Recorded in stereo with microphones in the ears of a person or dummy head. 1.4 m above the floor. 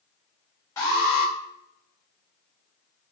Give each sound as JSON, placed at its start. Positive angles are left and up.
{"t": 0.8, "sound": "an alarm", "side_deg": 20, "distance_m": 1.9}